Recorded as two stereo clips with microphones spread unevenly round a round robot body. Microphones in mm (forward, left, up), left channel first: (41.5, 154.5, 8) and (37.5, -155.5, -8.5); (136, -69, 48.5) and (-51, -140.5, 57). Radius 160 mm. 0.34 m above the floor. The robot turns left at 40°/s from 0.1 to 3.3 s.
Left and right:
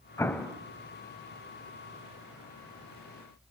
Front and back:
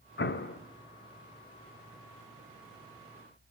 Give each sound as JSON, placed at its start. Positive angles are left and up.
{"t": 0.2, "sound": "an explosion", "azimuth_deg": 10, "distance_m": 1.1}